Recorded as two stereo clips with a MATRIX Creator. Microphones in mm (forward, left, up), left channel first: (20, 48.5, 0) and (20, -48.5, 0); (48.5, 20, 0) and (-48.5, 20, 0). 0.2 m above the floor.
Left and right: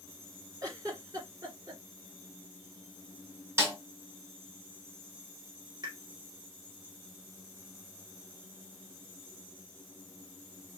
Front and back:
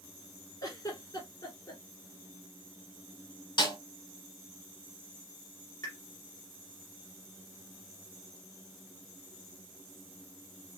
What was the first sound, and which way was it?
A giggle, 45° right.